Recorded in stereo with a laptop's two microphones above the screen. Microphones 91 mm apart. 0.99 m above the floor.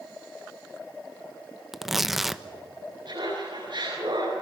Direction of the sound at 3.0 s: 55° right (ahead or behind).